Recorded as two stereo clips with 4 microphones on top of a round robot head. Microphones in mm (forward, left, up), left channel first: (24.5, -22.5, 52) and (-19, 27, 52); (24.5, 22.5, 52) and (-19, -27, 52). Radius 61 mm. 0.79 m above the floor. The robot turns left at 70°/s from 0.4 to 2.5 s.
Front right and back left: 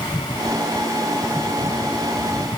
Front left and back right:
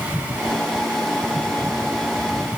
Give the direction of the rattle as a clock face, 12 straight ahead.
No rattle in this recording.